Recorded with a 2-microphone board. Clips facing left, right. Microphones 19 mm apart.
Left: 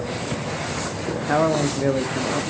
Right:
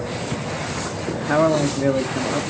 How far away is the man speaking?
About 1.0 m.